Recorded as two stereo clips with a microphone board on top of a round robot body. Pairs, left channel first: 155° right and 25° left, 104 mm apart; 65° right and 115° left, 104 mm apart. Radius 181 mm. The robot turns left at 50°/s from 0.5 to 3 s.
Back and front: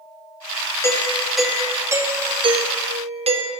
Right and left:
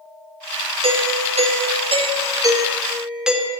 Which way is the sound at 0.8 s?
140° left.